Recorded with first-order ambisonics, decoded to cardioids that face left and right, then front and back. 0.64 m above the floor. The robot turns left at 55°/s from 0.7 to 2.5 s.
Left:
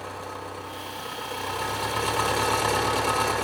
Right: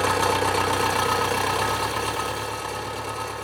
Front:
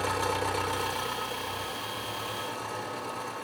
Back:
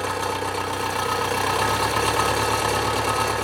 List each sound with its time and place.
0.0 s an engine running: 105° right, 1.3 m; by 3.4 s 155° left, 1.3 m